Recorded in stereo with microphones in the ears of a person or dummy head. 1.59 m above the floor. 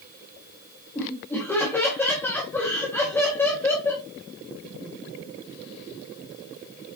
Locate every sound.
0.9 s laughter: 5° left (ahead or behind), 2 m